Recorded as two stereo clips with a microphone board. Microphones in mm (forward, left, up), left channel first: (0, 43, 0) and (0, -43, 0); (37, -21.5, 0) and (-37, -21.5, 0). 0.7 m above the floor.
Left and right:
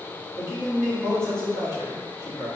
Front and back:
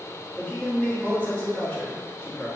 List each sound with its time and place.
0.4 s a man speaking: 65° left, 1.4 m